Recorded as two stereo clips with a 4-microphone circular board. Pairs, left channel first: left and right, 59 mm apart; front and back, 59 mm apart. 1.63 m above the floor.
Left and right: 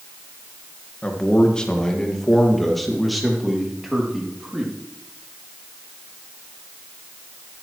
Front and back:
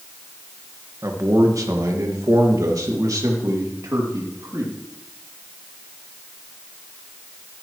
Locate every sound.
1.0 s a man speaking: 155° left, 1.7 m; by 4.7 s 170° right, 3 m